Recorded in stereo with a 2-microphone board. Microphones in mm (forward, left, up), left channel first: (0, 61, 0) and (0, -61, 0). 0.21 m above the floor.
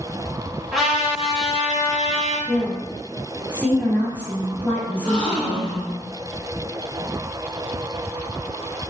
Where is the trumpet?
Centre (ahead or behind), 1.5 m.